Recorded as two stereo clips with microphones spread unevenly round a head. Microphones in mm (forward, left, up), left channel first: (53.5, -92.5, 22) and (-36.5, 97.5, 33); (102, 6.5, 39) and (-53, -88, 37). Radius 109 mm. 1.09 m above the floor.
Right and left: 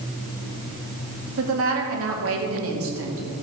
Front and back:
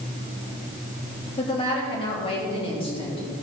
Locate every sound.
1.4 s a woman speaking: 95° left, 2.5 m